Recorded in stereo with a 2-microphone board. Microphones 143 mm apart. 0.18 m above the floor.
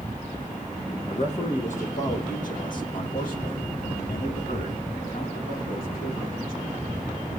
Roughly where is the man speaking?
Left.